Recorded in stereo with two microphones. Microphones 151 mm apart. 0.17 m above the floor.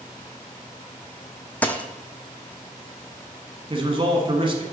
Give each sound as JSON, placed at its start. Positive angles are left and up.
{"t": 1.6, "sound": "a dropped coin", "side_deg": 10, "distance_m": 0.6}
{"t": 3.7, "sound": "a man speaking", "side_deg": -35, "distance_m": 1.3}